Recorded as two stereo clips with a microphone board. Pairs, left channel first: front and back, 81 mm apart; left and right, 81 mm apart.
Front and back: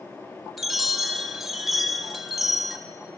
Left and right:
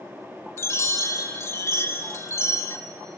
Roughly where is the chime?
Left.